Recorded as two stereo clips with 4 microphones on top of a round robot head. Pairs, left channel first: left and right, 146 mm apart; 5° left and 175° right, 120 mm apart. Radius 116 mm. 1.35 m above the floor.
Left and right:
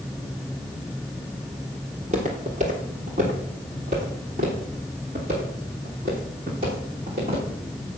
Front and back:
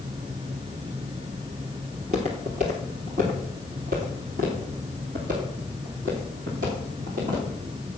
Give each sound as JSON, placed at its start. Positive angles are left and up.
{"t": 1.9, "sound": "footsteps", "azimuth_deg": -140, "distance_m": 1.7}